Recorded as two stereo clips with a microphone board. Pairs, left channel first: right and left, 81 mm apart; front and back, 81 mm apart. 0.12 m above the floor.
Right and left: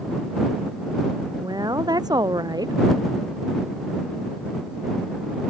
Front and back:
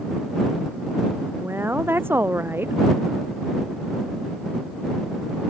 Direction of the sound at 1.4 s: 120° left.